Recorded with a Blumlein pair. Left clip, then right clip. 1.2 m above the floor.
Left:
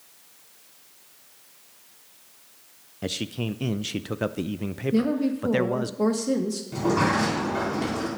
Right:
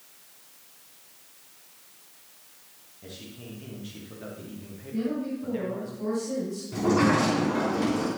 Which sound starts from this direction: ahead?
A sliding door, at 6.7 s.